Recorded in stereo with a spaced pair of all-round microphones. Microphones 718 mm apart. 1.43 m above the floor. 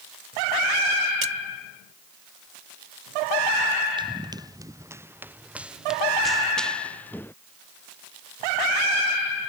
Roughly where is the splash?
Right.